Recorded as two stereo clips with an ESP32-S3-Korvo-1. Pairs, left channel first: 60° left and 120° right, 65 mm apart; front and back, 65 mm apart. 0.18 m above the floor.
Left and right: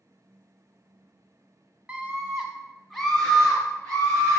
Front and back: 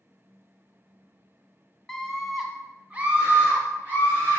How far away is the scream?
About 1.2 m.